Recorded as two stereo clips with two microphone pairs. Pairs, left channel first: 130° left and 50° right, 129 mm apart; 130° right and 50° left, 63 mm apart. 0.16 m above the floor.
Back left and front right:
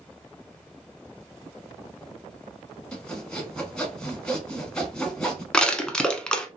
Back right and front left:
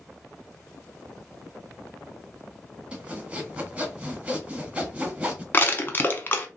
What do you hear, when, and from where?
2.9 s sawing: 55° left, 1.0 m
5.5 s crushing: 150° right, 0.7 m